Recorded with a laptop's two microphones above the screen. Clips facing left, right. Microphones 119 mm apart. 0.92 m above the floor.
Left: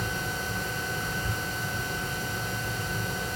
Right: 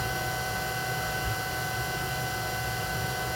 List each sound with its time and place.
0.0 s a machine running: 40° left (ahead or behind), 3 m